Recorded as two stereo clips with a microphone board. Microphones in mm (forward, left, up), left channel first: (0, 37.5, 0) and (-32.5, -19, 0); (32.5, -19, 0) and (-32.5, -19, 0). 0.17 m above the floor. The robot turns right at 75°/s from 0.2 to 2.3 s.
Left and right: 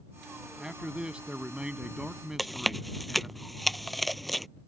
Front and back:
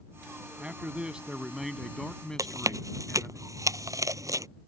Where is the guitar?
I don't hear a guitar.